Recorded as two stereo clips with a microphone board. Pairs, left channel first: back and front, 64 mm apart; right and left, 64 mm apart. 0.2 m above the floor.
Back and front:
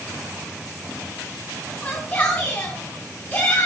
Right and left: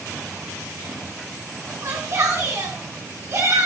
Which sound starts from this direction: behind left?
A shout, at 1.8 s.